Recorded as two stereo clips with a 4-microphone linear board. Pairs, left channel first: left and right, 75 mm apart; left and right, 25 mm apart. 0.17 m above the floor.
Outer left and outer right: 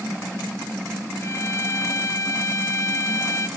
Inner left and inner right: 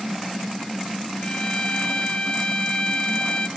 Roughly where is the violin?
Left.